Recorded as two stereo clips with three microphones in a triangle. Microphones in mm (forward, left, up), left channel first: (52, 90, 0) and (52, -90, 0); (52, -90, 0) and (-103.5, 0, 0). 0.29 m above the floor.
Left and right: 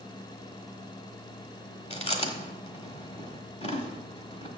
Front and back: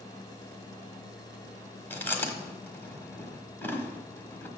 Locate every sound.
1.9 s chewing: 45° left, 1.3 m